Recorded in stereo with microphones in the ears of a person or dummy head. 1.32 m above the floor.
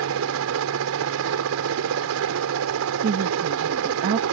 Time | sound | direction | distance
0.0 | a helicopter | 75° right (ahead or behind) | ?
3.0 | a woman speaking | 35° right (ahead or behind) | ?